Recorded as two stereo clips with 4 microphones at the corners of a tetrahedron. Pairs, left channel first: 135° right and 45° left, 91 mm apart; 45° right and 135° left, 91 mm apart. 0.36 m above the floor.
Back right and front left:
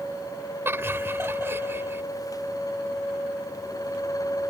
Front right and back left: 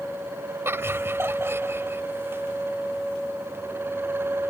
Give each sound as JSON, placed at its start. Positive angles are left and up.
{"t": 0.7, "sound": "laughter", "azimuth_deg": 90}